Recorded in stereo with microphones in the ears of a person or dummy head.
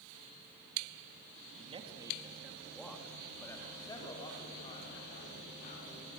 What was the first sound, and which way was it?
A man speaking, 35° right (ahead or behind).